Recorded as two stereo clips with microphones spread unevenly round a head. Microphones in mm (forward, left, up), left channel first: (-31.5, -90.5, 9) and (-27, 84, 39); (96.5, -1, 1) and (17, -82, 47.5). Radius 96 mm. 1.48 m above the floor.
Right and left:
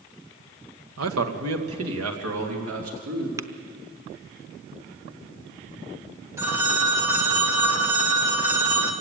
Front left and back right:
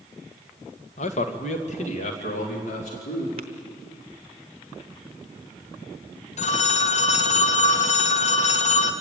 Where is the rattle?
No rattle in this recording.